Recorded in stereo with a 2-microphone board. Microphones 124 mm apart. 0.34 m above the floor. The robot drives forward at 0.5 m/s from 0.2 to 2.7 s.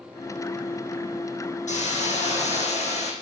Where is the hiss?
75° left (ahead or behind), 3.5 m; by 3.1 s 65° left (ahead or behind), 4 m.